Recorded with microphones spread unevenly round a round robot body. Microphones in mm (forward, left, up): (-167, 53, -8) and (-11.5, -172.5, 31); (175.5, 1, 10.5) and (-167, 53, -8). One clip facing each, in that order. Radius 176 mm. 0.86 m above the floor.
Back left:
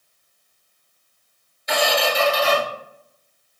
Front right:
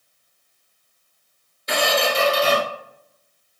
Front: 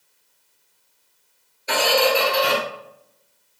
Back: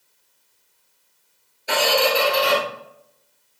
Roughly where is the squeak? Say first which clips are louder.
Even, front 1 dB; right.